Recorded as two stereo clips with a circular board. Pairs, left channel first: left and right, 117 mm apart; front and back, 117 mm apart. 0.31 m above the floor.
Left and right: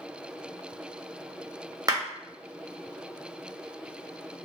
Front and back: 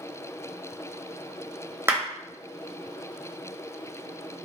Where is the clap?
125° right, 0.8 m.